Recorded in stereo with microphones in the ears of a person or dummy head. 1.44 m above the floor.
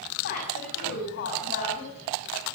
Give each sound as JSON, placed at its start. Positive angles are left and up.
{"t": 0.2, "sound": "a woman speaking", "side_deg": 50, "distance_m": 9.5}